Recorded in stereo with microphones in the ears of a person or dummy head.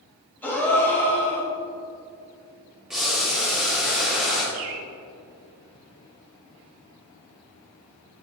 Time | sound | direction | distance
0.4 | a gasp | 10° left (ahead or behind) | 2.5 m
2.9 | boiling | centre (ahead or behind) | 1.7 m
4.5 | a bird | 70° right (ahead or behind) | 1.1 m